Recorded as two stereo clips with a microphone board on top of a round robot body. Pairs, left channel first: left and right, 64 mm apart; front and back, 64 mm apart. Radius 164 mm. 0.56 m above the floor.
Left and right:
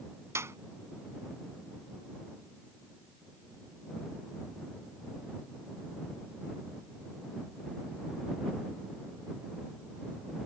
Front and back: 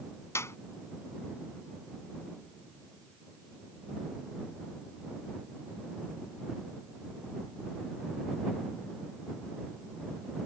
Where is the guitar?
I don't hear a guitar.